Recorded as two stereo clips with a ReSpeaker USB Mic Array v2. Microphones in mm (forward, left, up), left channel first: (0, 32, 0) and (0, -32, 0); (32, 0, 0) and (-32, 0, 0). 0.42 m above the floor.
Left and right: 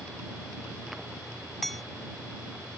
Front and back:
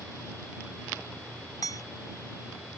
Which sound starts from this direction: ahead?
Hammering, at 1.6 s.